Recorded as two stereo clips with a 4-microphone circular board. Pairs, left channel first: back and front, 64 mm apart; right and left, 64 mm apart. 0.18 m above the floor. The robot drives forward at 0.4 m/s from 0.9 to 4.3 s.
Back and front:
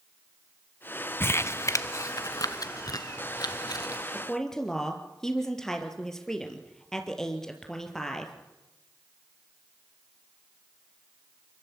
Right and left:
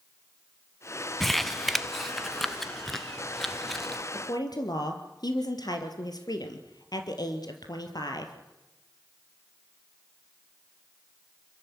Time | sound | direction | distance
1.2 | crumpling | 175° right | 0.6 m
4.1 | a woman speaking | 95° right | 3.5 m